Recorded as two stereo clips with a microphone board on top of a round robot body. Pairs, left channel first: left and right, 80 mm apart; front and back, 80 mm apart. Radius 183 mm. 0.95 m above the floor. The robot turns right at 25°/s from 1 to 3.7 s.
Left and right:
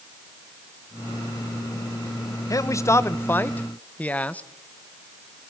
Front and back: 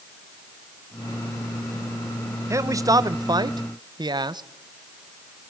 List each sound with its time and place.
2.5 s a man speaking: 130° left, 1.3 m; by 4.4 s 160° left, 1.3 m